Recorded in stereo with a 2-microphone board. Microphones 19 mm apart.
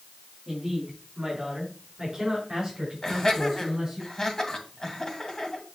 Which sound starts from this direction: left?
Laughter, at 3.0 s.